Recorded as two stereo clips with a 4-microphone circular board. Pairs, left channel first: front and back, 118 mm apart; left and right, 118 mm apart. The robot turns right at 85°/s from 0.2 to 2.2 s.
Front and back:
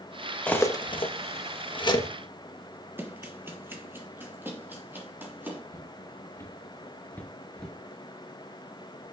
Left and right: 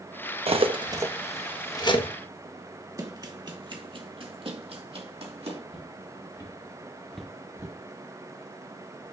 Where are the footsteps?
60° left, 2.5 m; by 7.8 s 80° right, 1.4 m.